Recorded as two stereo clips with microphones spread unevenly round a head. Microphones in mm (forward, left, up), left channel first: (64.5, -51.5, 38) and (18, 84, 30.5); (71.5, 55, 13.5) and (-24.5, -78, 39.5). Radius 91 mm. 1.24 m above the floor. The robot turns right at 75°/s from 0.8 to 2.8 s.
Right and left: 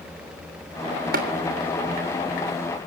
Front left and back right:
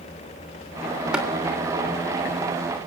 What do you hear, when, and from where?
1.1 s tapping: 150° left, 3 m; by 1.3 s 160° left, 3 m